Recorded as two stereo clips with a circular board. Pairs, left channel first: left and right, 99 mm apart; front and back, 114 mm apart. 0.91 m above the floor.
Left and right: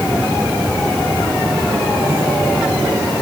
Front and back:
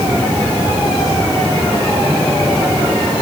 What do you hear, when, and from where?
Only background noise.